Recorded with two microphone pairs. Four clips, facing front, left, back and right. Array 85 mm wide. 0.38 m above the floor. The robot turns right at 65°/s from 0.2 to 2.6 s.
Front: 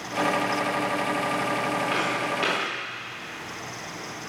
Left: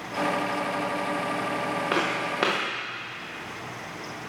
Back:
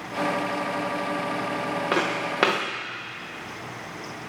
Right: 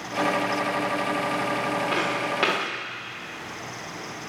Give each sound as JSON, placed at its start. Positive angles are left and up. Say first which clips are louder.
{"t": 1.9, "sound": "footsteps", "louder": "right 1 dB, back 1 dB", "azimuth_deg": 145, "distance_m": 2.5}